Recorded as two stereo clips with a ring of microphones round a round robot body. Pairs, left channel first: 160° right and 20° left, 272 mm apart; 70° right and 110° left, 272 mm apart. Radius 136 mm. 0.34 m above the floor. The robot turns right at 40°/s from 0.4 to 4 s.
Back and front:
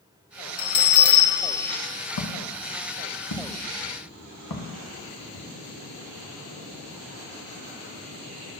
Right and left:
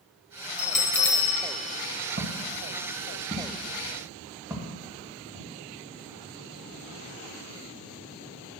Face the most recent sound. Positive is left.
turn(degrees=-175)